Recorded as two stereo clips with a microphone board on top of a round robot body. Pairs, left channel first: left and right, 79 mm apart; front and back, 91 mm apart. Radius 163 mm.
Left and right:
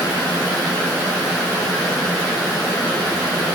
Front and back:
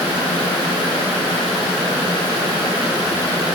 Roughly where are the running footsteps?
No running footsteps in this recording.